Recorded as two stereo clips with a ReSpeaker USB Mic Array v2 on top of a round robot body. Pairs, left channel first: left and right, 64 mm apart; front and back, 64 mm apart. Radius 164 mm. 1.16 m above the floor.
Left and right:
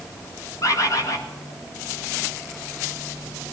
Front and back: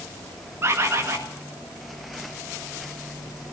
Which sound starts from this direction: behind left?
A bird, at 0.6 s.